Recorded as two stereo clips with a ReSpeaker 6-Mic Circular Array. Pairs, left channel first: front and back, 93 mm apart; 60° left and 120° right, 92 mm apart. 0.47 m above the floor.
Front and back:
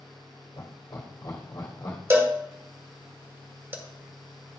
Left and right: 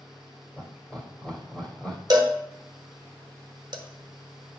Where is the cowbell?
125° right, 1.0 m.